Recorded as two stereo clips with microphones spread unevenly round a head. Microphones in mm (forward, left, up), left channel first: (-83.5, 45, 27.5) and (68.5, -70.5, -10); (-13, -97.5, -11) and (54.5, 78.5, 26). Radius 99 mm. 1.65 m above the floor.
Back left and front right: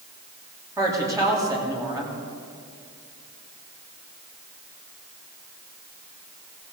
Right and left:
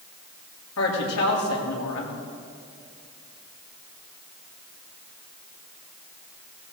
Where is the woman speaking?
110° right, 3.5 m.